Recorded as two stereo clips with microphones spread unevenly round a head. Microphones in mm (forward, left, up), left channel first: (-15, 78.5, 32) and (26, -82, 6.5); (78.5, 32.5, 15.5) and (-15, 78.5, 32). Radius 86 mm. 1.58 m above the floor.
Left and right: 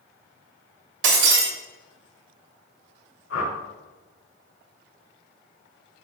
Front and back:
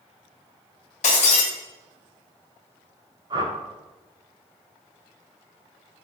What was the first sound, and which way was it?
Breaking glass, 60° right.